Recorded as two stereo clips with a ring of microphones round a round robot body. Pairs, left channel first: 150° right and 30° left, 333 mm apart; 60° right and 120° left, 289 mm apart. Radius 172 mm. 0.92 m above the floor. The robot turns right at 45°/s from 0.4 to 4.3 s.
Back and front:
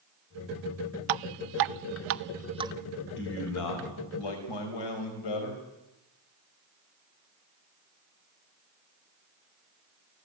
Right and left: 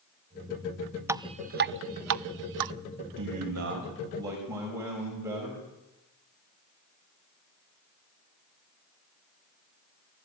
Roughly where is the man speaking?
Behind left.